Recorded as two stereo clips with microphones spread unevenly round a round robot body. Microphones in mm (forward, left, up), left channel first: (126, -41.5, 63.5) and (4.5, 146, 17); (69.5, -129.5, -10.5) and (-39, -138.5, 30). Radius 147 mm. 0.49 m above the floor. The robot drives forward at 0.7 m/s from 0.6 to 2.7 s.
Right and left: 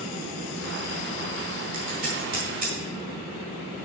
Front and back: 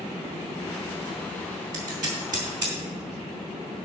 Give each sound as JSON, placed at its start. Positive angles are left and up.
{"t": 1.7, "sound": "scissors", "azimuth_deg": 175, "distance_m": 3.5}